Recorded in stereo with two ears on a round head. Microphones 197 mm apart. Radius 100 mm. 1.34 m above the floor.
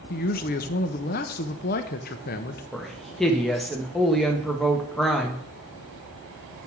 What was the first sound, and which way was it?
A man speaking, 40° left (ahead or behind).